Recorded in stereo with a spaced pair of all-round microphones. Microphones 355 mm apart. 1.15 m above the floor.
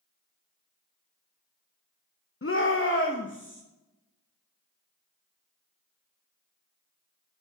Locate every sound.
2.4 s a shout: 35° left (ahead or behind), 0.9 m; by 3.6 s 30° left (ahead or behind), 1.6 m